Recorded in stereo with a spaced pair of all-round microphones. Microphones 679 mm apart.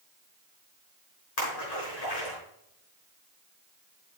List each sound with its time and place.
1.4 s a splash: 70° left (ahead or behind), 4.5 m